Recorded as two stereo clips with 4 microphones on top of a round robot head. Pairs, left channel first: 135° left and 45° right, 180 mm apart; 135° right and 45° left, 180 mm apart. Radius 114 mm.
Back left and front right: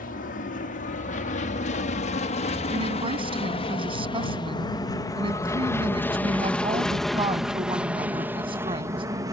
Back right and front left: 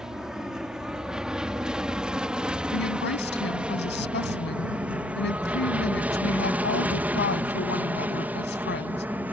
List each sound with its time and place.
0.0 s an aircraft: 130° left; by 9.3 s 20° right
2.7 s a woman speaking: 110° right